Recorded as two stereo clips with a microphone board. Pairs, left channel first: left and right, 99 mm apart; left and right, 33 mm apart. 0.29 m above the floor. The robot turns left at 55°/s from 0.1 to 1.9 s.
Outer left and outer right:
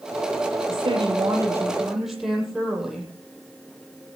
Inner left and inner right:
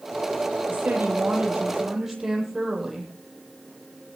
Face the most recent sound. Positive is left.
turn(degrees=-175)